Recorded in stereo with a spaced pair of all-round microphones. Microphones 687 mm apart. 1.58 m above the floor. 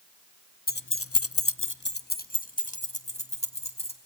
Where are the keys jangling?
15° left (ahead or behind), 0.7 m; by 4.0 s 10° left (ahead or behind), 3 m.